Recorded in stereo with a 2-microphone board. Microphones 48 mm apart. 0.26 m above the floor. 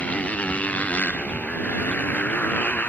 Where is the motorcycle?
30° left (ahead or behind); by 2.9 s 35° left (ahead or behind).